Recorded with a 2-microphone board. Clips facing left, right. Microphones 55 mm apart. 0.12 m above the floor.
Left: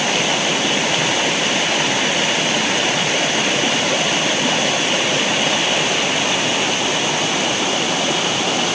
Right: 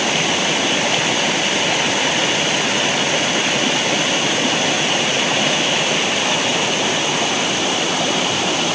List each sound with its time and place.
Only background noise.